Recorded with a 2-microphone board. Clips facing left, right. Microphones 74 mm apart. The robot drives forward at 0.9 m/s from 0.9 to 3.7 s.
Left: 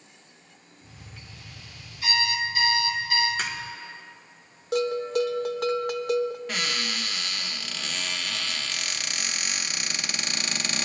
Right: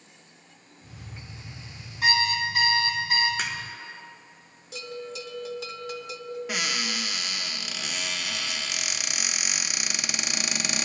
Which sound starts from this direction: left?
A bell, at 4.7 s.